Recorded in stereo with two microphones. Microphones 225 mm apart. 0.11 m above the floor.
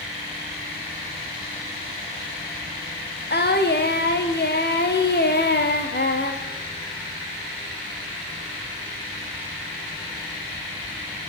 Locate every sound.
3.3 s singing: 45° left (ahead or behind), 4.5 m